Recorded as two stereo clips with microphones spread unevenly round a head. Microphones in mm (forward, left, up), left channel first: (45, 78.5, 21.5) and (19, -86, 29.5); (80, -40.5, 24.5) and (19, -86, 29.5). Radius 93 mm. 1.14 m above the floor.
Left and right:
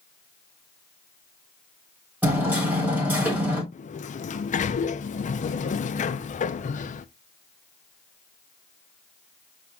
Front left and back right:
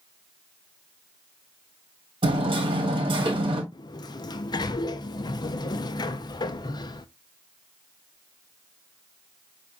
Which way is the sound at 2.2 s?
Straight behind.